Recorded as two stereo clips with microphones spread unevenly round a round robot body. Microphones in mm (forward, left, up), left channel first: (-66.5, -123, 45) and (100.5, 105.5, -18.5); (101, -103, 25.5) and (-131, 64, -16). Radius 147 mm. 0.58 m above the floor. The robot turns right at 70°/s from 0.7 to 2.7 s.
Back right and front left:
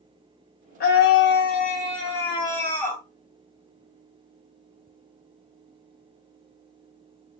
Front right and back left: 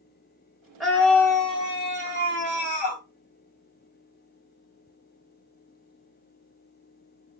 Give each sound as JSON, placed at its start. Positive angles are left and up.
{"t": 0.8, "sound": "a scream", "azimuth_deg": -155, "distance_m": 0.5}